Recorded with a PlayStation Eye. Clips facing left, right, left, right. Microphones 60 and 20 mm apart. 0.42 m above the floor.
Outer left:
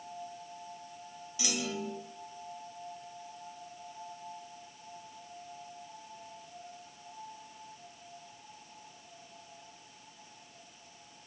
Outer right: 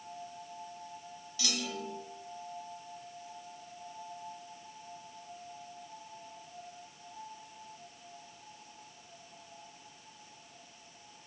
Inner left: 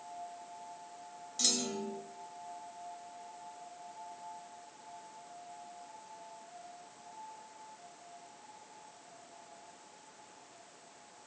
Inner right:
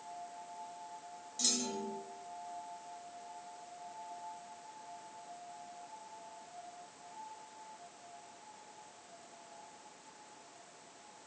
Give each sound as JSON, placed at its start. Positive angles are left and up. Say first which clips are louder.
{"t": 1.4, "sound": "a clunk", "louder": "outer left 2 dB, inner left 3 dB", "side_deg": 20, "distance_m": 1.2}